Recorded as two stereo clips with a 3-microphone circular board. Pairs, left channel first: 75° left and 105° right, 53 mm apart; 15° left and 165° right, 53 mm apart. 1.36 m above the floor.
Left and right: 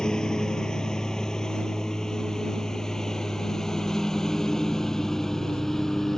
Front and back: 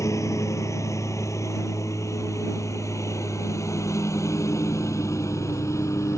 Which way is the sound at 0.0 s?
Straight ahead.